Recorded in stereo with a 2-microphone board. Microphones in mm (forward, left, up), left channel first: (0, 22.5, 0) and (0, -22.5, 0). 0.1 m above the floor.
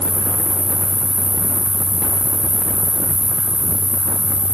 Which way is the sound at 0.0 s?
15° left (ahead or behind).